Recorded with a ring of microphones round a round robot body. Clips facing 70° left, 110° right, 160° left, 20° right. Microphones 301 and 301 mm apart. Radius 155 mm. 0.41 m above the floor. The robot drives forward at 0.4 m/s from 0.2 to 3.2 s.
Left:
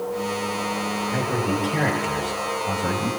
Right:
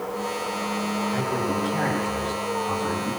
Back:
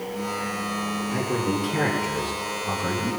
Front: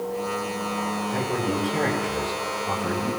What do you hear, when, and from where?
1.1 s a man speaking: 95° left, 9.5 m; by 3.1 s 100° left, 9.5 m